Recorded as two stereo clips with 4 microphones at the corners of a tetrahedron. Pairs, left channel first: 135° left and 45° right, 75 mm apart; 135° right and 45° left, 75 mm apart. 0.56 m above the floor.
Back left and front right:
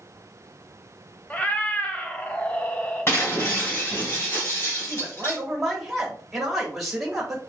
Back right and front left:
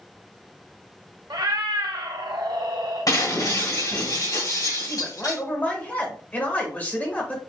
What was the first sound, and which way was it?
A cat meowing, 65° left.